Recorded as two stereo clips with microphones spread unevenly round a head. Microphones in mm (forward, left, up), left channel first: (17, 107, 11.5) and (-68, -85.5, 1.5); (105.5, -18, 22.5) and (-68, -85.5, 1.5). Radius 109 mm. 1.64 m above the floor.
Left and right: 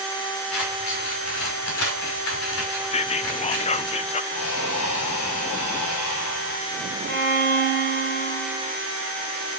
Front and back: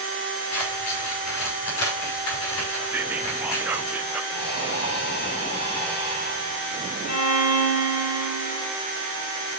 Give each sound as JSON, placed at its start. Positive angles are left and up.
{"t": 0.5, "sound": "scissors", "azimuth_deg": 35, "distance_m": 5.5}
{"t": 2.9, "sound": "whispering", "azimuth_deg": 115, "distance_m": 0.7}
{"t": 4.3, "sound": "breathing", "azimuth_deg": 70, "distance_m": 6.5}
{"t": 7.1, "sound": "a violin", "azimuth_deg": -15, "distance_m": 3.5}